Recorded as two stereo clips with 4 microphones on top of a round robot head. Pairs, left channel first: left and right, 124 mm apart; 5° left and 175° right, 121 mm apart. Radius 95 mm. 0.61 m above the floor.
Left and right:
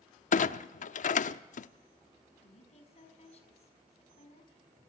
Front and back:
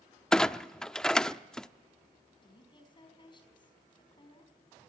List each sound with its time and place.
0.3 s a clunk: 90° left, 0.7 m
2.4 s a woman speaking: 55° left, 5 m